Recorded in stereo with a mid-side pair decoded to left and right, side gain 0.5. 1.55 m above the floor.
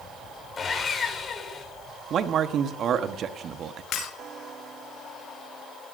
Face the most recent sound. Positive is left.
turn(degrees=60)